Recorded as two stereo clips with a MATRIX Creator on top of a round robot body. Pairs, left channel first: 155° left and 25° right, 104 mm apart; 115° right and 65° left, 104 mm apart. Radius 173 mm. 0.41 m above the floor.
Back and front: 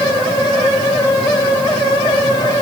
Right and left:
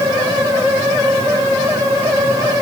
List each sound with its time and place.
Only background noise.